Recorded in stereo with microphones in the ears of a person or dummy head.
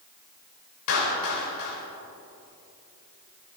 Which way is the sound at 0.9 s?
70° left (ahead or behind).